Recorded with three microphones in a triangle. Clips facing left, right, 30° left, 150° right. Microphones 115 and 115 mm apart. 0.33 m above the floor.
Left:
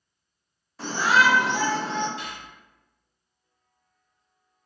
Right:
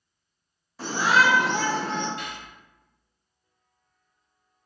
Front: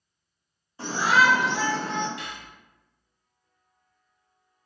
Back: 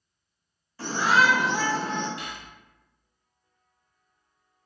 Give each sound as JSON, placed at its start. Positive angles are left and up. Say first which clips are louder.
{"t": 0.8, "sound": "a shout", "louder": "even, front 1 dB", "azimuth_deg": -5, "distance_m": 0.9}
{"t": 2.2, "sound": "cutlery clinking", "louder": "right 1 dB, even", "azimuth_deg": -90, "distance_m": 1.1}